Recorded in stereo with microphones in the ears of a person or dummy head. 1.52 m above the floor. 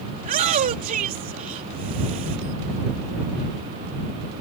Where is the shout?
40° right (ahead or behind).